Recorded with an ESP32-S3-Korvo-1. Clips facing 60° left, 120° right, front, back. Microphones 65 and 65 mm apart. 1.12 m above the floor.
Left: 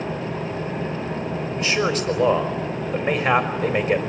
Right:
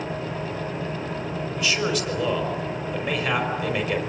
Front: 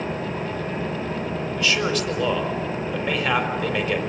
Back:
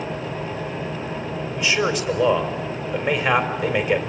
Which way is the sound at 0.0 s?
45° left.